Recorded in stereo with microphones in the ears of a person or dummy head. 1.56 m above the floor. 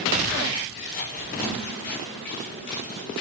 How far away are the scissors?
About 7 m.